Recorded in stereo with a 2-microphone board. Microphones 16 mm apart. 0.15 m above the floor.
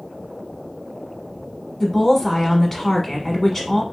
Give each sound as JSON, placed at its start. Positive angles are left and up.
{"t": 1.8, "sound": "a woman speaking", "side_deg": 10, "distance_m": 1.1}